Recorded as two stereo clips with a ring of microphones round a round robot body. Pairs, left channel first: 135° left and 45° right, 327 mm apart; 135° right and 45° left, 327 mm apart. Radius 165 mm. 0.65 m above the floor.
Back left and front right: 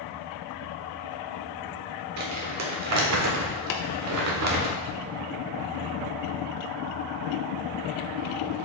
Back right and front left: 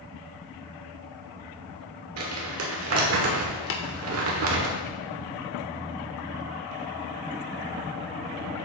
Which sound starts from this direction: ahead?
Crumpling, at 2.2 s.